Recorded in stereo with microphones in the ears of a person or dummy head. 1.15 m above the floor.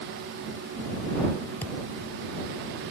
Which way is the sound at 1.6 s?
10° left (ahead or behind).